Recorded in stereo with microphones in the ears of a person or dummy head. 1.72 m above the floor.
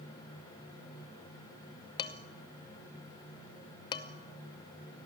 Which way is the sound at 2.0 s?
30° left (ahead or behind).